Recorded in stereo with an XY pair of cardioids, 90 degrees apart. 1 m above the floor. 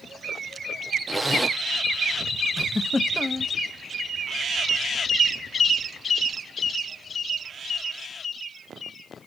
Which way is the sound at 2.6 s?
25° left.